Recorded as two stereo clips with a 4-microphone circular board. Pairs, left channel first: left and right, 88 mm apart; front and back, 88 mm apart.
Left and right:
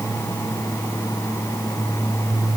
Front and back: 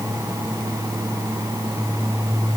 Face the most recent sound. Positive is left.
No sound to turn to.